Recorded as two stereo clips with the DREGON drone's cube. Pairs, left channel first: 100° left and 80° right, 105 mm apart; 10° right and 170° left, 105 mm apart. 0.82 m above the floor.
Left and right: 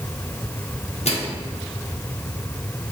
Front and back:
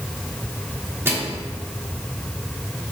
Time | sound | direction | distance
1.1 | a microwave | 105° left | 1.2 m